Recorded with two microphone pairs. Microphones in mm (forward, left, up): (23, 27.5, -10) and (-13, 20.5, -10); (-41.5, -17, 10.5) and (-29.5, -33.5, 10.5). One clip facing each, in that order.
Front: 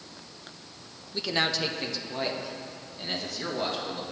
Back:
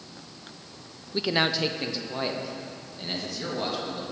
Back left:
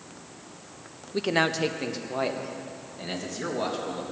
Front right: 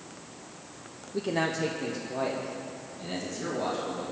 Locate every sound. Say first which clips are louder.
1.1 s a man speaking: back 3 dB, back left 4 dB; 120° left, 0.7 m; by 4.0 s 100° left, 3 m